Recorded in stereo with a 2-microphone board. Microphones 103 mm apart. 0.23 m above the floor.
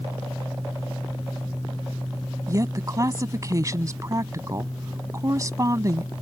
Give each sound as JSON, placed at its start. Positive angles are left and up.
{"t": 2.5, "sound": "a woman speaking", "side_deg": -35}